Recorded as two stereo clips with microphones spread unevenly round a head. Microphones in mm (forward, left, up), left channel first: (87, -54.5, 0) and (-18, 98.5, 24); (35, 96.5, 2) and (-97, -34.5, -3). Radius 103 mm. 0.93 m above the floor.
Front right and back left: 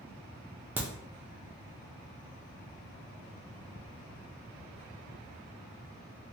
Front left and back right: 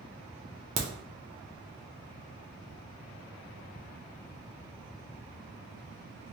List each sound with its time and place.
0.8 s a crack: 150° right, 0.6 m